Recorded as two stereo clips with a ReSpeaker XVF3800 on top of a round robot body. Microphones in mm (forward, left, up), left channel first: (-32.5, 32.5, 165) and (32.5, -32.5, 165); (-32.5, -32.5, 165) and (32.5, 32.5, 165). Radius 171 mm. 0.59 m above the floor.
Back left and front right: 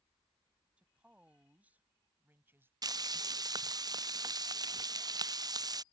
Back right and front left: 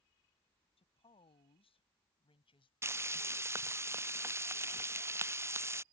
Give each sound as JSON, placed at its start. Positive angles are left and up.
{"t": 0.8, "sound": "a woman speaking", "azimuth_deg": -125}
{"t": 2.8, "sound": "frying", "azimuth_deg": -10}